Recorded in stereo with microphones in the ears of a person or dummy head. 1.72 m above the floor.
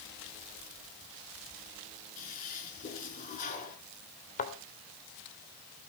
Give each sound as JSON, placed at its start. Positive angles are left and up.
{"t": 2.2, "sound": "a toilet flushing", "side_deg": 45, "distance_m": 5.0}
{"t": 4.4, "sound": "a thud", "side_deg": 45, "distance_m": 3.5}